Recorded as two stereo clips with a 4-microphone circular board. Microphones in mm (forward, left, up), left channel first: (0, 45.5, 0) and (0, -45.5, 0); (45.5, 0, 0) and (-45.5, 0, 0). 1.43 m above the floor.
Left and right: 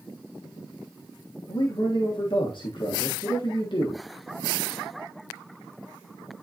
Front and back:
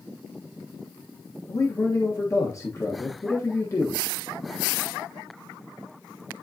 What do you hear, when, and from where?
1.5 s a man speaking: 55° left, 1.4 m